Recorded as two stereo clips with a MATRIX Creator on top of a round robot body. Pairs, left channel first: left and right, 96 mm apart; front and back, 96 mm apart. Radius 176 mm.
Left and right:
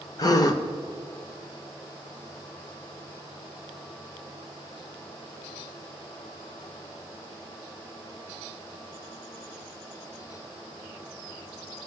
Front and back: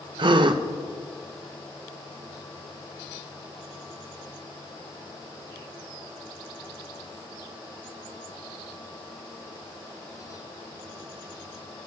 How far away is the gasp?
About 0.5 m.